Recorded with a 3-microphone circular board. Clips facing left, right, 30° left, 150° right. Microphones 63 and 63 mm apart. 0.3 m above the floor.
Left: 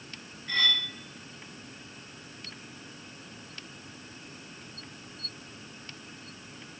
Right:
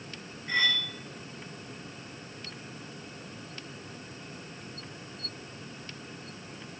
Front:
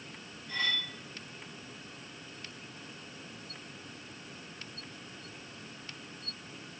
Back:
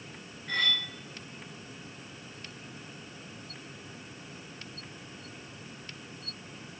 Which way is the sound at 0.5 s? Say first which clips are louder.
Right 1 dB, back 3 dB; 160° right.